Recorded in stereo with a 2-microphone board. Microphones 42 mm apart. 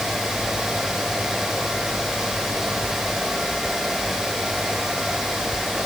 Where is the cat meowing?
No cat meowing in this recording.